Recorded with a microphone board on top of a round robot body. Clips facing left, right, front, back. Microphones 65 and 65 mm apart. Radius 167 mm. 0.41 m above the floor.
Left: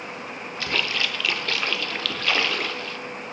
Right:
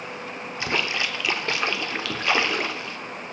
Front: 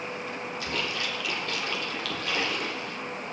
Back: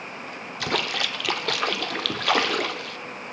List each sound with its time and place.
0.6 s a splash: 160° right, 0.6 m